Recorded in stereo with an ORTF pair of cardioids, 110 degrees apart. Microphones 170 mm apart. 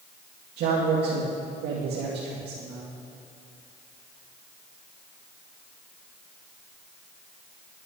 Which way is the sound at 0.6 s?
70° right.